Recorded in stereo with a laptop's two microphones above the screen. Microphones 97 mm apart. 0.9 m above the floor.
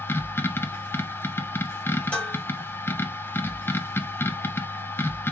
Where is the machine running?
25° left (ahead or behind), 0.8 m.